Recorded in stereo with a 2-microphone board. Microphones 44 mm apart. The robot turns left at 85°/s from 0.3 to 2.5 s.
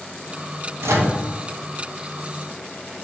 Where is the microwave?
80° right, 0.6 m; by 1.1 s 70° right (ahead or behind), 0.6 m.